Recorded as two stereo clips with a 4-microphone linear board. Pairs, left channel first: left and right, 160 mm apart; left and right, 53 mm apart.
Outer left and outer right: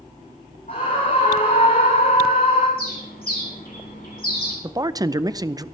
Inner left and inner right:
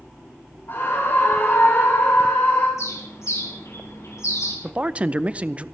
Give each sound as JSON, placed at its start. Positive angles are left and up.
{"t": 0.7, "sound": "a scream", "side_deg": 55, "distance_m": 4.5}
{"t": 2.8, "sound": "a bird", "side_deg": 70, "distance_m": 5.0}
{"t": 4.6, "sound": "a man speaking", "side_deg": -25, "distance_m": 0.5}